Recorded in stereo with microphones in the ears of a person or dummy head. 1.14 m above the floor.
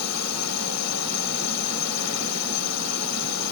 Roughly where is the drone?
Left.